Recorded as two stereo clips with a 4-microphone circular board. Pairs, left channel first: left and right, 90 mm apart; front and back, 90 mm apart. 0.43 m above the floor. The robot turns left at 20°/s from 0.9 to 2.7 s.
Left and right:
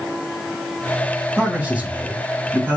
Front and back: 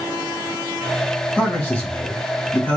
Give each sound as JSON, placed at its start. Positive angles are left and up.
{"t": 1.4, "sound": "a man speaking", "azimuth_deg": -35, "distance_m": 1.3}